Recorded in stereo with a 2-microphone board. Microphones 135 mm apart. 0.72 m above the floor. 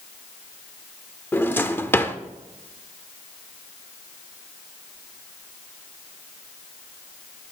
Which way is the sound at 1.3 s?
15° left (ahead or behind).